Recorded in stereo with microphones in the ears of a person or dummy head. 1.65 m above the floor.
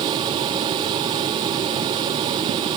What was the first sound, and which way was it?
Only background noise.